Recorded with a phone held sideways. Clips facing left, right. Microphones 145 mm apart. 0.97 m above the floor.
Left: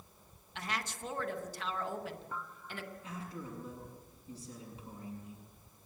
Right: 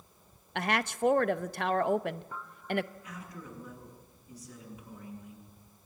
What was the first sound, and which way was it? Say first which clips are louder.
A woman speaking: right 10 dB; 65° right (ahead or behind).